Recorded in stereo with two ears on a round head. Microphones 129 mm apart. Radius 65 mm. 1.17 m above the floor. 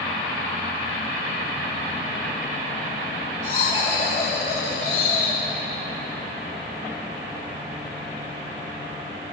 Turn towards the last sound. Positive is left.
turn(degrees=45)  # may be behind; listen again after turning